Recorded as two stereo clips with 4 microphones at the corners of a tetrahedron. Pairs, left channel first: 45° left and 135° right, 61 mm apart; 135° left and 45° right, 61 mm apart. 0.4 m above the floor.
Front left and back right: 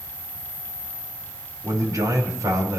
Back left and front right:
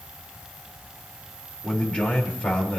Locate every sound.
1.6 s a man speaking: 150° right, 6.5 m